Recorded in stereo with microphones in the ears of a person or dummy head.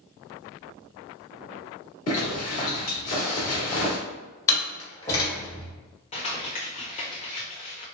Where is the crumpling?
30° left (ahead or behind), 1.0 m.